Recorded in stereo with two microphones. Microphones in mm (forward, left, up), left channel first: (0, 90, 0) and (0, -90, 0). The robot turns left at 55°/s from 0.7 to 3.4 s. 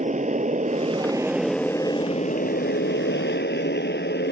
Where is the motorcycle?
135° right; by 4.3 s 75° left.